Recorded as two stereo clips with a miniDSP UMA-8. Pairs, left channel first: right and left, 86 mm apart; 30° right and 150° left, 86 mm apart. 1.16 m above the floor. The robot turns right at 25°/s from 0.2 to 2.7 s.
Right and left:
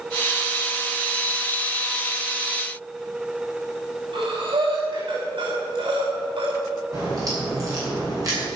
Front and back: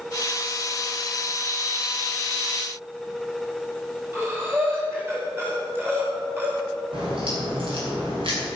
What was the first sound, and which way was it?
Breathing, 85° left.